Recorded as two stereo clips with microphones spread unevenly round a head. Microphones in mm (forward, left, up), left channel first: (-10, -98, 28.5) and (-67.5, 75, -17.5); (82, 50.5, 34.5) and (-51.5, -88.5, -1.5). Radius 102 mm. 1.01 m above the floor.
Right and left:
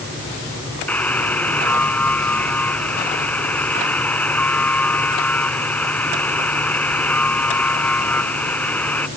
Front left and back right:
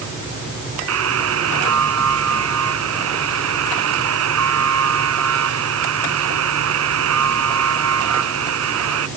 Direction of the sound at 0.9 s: 150° right.